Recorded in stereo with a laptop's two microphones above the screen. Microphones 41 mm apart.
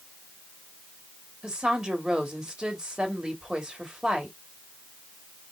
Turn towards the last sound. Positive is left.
turn(degrees=-20)  # may be behind; listen again after turning